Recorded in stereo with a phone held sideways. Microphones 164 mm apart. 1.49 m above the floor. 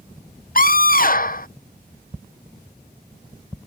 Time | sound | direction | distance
0.6 | a scream | 55° left (ahead or behind) | ?